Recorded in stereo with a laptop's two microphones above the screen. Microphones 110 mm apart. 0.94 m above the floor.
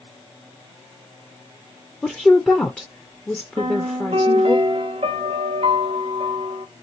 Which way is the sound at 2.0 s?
10° left (ahead or behind).